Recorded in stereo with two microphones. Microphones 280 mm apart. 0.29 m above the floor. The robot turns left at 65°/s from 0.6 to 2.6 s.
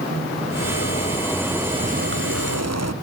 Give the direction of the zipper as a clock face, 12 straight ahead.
10 o'clock.